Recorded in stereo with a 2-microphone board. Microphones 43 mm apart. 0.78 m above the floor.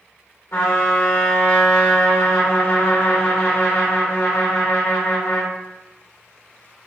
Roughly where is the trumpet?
Left.